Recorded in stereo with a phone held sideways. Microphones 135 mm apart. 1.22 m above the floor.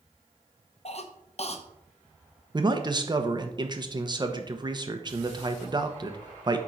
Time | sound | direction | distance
0.8 | a cough | 50° left (ahead or behind) | 1.1 m
2.5 | a man speaking | 35° right (ahead or behind) | 1.0 m